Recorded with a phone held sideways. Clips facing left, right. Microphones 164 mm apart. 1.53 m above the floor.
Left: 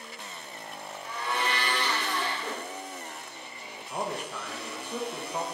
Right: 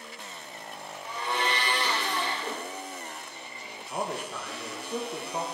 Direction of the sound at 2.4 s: 10° right (ahead or behind).